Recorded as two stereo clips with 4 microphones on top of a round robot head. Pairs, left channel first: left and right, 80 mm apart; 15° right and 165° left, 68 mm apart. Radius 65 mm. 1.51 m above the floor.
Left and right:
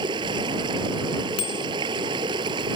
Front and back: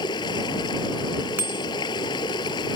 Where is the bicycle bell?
105° left.